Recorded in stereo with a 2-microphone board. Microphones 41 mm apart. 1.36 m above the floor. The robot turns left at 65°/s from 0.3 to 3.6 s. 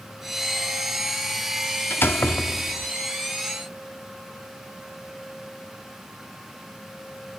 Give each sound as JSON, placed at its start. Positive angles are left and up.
{"t": 1.9, "sound": "a door slam", "azimuth_deg": 75}